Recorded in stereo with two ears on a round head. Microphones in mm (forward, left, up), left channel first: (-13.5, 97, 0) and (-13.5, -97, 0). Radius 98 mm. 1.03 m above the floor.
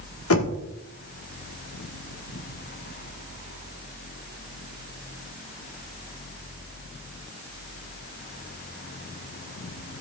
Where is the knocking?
70° left (ahead or behind), 1.6 m.